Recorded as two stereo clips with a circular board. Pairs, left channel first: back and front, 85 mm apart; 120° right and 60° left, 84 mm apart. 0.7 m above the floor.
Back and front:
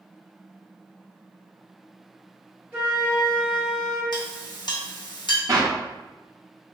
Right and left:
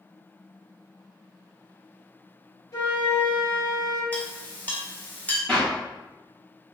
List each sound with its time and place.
2.7 s a flute: 70° right, 1.1 m
4.1 s a clink: 175° left, 0.7 m
5.5 s a clap: 45° right, 1.1 m